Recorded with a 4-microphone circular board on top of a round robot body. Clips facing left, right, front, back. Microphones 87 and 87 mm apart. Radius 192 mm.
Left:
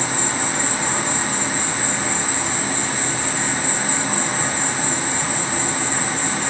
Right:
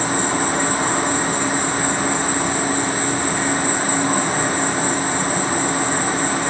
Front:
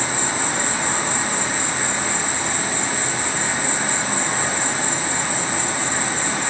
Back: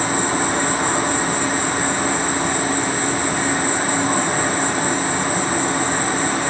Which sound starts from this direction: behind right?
An insect, at 0.0 s.